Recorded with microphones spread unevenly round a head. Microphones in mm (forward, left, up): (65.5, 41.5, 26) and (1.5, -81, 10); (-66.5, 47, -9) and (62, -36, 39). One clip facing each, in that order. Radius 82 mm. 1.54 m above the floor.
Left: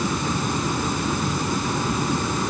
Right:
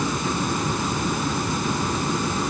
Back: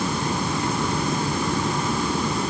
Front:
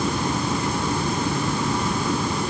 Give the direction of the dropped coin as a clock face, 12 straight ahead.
I don't hear a dropped coin.